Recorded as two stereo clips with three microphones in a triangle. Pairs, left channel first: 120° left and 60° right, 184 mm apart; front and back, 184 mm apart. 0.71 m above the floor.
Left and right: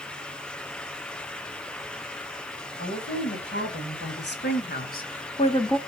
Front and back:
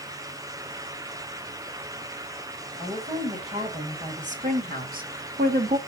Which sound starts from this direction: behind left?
A woman speaking, at 2.8 s.